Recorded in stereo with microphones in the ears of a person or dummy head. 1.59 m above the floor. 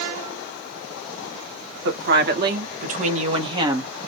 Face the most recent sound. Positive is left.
turn(degrees=-10)  # may be behind; listen again after turning